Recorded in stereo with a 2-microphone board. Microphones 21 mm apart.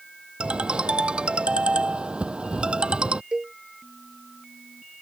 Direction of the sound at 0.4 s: 65° right (ahead or behind).